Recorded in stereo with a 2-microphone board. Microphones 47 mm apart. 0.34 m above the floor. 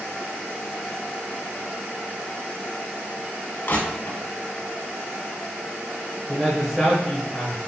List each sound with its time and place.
3.7 s crushing: 50° left (ahead or behind), 1.1 m
6.3 s a man speaking: 5° right (ahead or behind), 1.0 m